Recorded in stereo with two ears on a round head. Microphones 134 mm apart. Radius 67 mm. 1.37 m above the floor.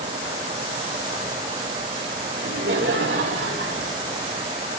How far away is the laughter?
About 3.5 m.